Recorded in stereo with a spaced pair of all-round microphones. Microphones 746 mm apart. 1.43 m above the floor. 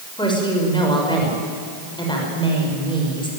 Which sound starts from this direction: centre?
A woman speaking, at 0.2 s.